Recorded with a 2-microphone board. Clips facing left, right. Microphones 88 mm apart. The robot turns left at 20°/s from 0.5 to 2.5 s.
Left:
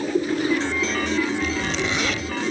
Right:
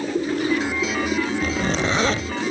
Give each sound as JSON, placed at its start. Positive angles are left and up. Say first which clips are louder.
{"t": 1.4, "sound": "a zipper", "louder": "right 2 dB", "side_deg": -45}